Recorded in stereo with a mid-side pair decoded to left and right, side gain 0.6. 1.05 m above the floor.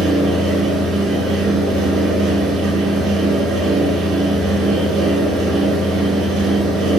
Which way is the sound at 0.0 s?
60° right.